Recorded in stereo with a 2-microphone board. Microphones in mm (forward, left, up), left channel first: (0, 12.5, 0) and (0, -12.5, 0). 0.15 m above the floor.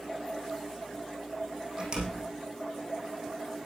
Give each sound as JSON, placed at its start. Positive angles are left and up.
{"t": 1.8, "sound": "a door slam", "side_deg": -30, "distance_m": 5.0}